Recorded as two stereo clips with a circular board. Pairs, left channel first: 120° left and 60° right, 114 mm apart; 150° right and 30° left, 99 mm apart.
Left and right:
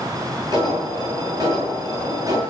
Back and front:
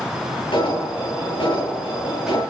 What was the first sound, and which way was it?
An alarm, 115° right.